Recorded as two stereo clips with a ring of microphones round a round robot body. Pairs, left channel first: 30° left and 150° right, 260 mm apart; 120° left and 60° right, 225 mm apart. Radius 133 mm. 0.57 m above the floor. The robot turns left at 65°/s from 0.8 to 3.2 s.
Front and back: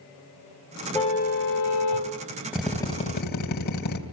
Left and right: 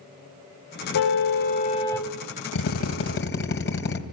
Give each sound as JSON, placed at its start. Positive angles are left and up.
{"t": 0.9, "sound": "a car horn", "azimuth_deg": 105, "distance_m": 2.5}
{"t": 2.5, "sound": "a drill", "azimuth_deg": 125, "distance_m": 2.5}